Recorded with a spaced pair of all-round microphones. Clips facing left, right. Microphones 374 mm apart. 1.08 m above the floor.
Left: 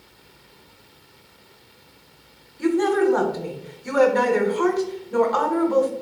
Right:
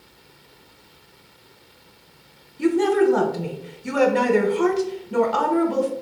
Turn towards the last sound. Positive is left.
turn(degrees=-45)  # may be behind; listen again after turning